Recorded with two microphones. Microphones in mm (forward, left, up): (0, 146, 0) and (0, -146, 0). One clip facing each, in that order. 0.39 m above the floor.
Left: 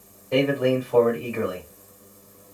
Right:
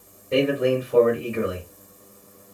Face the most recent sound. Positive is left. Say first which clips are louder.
# even
turn(degrees=-25)  # may be behind; listen again after turning